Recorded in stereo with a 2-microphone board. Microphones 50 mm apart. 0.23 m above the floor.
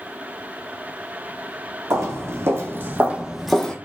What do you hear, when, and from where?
1.9 s footsteps: 70° right (ahead or behind), 1.0 m; by 3.8 s 15° left (ahead or behind), 0.5 m